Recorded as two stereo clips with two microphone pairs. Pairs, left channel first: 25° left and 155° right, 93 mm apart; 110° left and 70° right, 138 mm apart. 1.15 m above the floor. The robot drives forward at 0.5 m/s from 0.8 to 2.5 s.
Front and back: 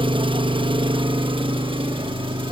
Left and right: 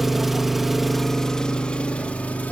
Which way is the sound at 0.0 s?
155° right.